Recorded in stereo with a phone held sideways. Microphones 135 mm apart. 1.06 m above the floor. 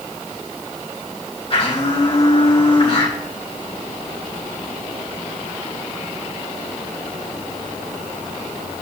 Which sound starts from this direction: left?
A blender, at 1.5 s.